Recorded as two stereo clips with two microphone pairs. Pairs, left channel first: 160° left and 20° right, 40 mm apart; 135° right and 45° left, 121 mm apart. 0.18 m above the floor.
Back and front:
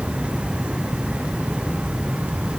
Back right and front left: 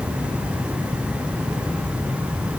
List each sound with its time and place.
Only background noise.